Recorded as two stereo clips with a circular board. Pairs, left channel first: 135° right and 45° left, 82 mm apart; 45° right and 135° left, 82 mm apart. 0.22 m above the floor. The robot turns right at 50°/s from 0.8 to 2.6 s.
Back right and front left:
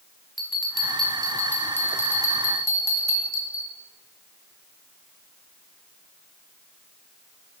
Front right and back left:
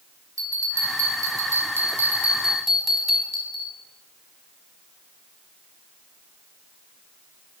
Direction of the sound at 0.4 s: 130° left.